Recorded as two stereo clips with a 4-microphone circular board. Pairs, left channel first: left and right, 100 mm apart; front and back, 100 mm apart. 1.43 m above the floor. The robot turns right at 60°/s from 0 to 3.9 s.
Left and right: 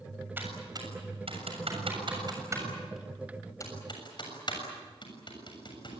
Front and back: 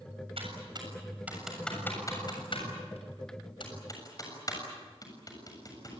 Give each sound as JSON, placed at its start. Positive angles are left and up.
{"t": 0.4, "sound": "typing on a keyboard", "azimuth_deg": -160, "distance_m": 7.0}